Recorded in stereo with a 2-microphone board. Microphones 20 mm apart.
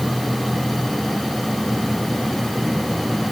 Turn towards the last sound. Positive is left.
No sound to turn to.